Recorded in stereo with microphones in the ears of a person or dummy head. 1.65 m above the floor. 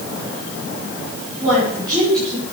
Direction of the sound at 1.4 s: 15° right (ahead or behind).